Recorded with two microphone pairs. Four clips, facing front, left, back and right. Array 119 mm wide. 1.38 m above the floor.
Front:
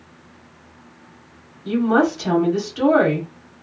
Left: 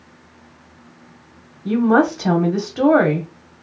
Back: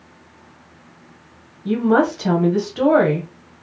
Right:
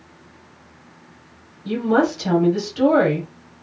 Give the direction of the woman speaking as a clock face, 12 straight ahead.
8 o'clock.